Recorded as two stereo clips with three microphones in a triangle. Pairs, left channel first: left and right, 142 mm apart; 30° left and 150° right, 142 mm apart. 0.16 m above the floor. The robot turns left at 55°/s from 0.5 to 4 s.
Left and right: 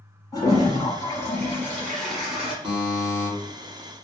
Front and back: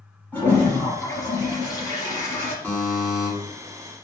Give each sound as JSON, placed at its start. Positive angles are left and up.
{"t": 0.3, "sound": "a toilet flushing", "azimuth_deg": 90, "distance_m": 1.2}
{"t": 2.6, "sound": "a buzzer", "azimuth_deg": -45, "distance_m": 1.7}